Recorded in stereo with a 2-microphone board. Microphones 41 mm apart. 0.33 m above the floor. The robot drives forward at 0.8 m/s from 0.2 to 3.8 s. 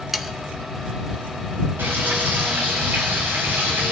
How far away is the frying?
About 8 m.